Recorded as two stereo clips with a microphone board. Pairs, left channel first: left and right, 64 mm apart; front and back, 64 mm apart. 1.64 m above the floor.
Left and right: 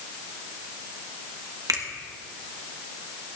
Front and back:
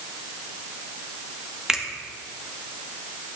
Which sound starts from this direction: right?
A finger snap, at 1.7 s.